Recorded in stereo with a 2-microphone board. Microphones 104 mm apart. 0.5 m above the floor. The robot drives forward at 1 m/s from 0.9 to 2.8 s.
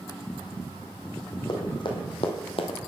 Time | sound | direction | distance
1.5 | running footsteps | 45° left (ahead or behind) | 2 m